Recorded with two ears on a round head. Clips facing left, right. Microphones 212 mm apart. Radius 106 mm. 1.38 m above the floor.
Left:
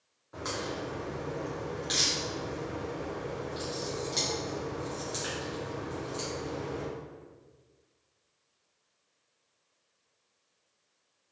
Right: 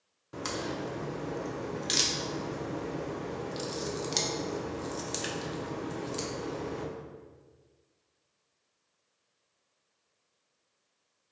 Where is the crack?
40° right (ahead or behind), 0.6 m.